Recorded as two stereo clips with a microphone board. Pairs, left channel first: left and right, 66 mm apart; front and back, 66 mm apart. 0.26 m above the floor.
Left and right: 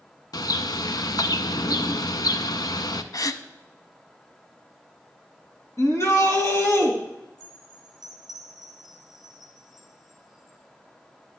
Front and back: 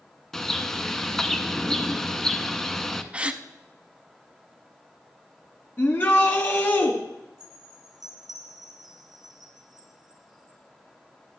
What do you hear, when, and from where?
0.3 s a bird: 80° left, 0.6 m
3.1 s a gasp: 110° left, 0.5 m
5.8 s a shout: 50° left, 2.5 m
7.4 s a chime: straight behind, 2.5 m